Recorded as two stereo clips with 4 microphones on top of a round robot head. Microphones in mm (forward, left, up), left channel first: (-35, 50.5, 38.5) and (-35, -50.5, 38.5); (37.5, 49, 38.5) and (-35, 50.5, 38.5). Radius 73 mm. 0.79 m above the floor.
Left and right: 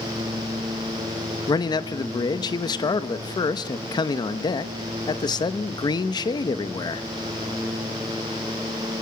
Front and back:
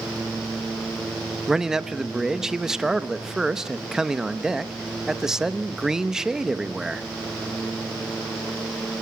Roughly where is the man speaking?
Left.